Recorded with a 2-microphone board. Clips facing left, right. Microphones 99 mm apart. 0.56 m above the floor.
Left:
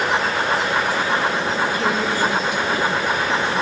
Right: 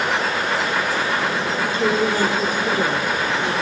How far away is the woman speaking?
About 2 m.